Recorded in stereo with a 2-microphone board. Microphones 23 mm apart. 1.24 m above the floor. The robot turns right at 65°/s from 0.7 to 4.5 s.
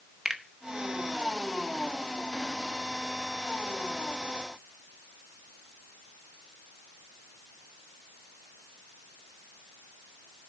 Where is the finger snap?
30° right (ahead or behind), 1.1 m.